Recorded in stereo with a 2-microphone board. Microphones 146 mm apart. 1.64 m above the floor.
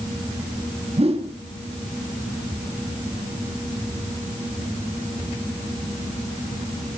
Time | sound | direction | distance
1.0 | a whoosh | 45° right (ahead or behind) | 1.7 m